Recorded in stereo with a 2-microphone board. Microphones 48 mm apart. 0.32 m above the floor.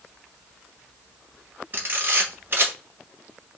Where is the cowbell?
I don't hear a cowbell.